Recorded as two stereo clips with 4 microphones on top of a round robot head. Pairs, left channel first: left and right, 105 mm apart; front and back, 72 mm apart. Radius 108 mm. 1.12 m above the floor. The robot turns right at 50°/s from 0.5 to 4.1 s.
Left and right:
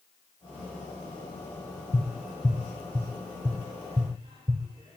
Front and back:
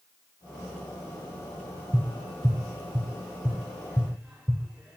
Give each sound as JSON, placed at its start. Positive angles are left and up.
{"t": 1.9, "sound": "tapping", "azimuth_deg": 160, "distance_m": 0.9}